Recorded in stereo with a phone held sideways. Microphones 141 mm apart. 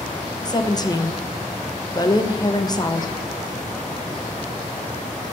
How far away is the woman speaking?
About 0.9 m.